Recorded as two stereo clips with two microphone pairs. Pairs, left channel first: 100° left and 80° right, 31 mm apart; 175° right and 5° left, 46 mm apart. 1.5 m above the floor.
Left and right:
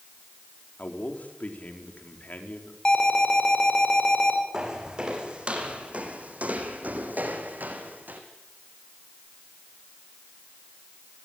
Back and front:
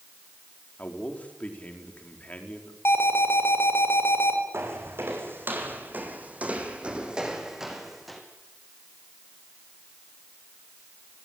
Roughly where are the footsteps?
Ahead.